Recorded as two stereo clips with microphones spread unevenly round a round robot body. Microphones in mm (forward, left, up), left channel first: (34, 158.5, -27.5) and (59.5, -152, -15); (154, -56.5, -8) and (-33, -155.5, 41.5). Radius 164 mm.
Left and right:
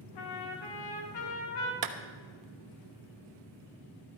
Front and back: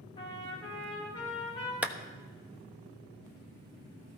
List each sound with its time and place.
0.1 s a trumpet: 100° left, 2.5 m
1.8 s a clap: 65° right, 1.3 m